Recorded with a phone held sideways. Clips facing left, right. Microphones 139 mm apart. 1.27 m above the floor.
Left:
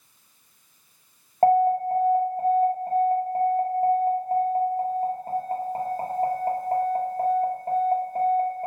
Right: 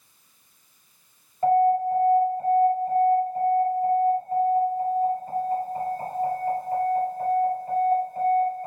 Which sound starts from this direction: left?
An alarm, at 1.4 s.